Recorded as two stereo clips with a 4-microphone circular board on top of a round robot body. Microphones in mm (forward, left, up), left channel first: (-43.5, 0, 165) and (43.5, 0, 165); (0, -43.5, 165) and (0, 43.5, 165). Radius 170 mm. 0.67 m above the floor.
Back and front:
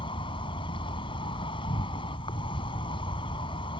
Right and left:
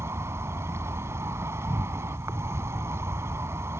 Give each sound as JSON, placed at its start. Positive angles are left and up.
{"t": 0.0, "sound": "an insect", "azimuth_deg": 150}